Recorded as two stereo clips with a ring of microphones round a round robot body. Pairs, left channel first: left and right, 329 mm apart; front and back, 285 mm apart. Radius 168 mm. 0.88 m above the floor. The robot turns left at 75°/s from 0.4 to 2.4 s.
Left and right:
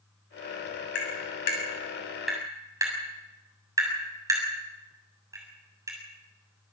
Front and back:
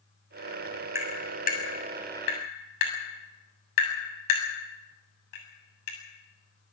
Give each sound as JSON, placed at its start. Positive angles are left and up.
{"t": 0.9, "sound": "tapping", "azimuth_deg": 100, "distance_m": 7.0}